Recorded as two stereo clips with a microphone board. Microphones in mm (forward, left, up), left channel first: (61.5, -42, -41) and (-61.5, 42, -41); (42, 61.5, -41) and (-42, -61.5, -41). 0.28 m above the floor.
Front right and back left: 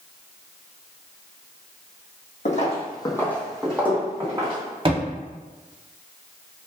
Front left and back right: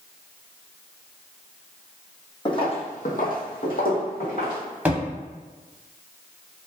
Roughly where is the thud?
Behind.